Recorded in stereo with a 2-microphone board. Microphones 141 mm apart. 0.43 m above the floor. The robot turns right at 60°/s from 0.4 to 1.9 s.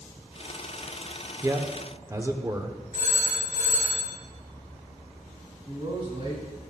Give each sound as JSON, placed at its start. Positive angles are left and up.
{"t": 1.4, "sound": "a man speaking", "side_deg": -20, "distance_m": 0.9}
{"t": 2.9, "sound": "a phone ringing", "side_deg": -65, "distance_m": 5.0}
{"t": 5.7, "sound": "a man speaking", "side_deg": -50, "distance_m": 4.5}